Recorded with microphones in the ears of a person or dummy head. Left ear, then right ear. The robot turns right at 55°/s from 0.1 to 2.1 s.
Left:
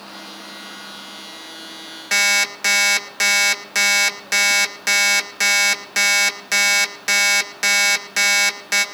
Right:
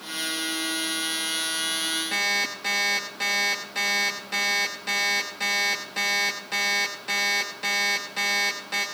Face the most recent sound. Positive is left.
turn(degrees=65)  # may be behind; listen again after turning